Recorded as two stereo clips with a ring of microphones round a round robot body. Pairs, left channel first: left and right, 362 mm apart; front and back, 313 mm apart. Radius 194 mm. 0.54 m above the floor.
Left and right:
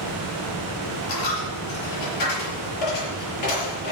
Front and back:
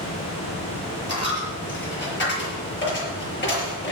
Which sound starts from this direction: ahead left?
A dropped coin, at 1.1 s.